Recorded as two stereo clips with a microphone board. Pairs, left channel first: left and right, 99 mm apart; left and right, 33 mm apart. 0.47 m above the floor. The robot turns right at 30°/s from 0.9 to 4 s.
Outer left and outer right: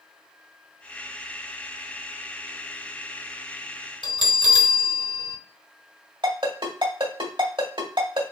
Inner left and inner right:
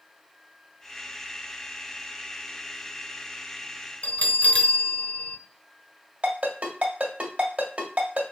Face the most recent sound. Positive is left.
turn(degrees=-50)  # may be behind; listen again after turning